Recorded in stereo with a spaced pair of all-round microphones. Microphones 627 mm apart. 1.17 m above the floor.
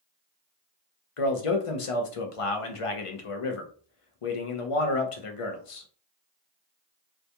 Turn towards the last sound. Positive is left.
turn(degrees=60)  # may be behind; listen again after turning